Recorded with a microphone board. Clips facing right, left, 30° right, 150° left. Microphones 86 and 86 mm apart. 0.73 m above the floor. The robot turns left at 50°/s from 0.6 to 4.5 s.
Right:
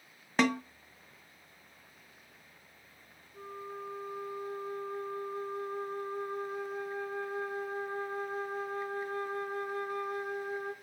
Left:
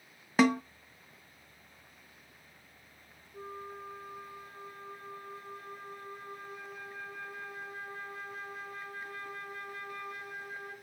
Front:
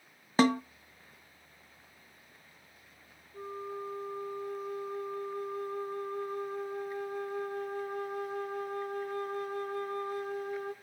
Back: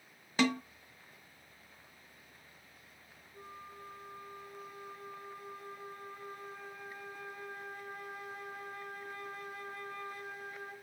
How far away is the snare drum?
About 0.6 m.